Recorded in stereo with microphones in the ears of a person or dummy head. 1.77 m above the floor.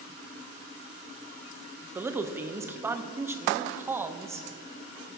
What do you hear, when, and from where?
1.9 s a man speaking: 10° right (ahead or behind), 0.7 m